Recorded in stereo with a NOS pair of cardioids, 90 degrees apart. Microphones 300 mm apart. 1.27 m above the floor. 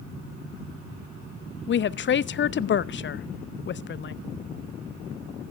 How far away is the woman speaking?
About 0.6 m.